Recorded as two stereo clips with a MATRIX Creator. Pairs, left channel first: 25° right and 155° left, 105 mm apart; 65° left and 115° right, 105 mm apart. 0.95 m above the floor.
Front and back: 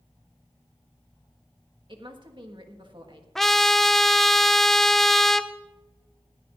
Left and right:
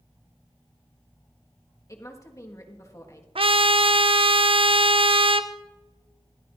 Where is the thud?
No thud in this recording.